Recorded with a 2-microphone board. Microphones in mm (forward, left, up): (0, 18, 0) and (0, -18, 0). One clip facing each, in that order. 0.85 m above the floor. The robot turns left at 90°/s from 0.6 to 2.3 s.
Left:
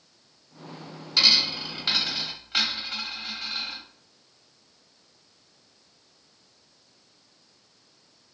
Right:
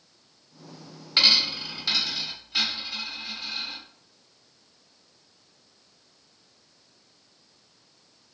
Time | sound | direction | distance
1.2 | a dropped coin | 35° right (ahead or behind) | 0.9 m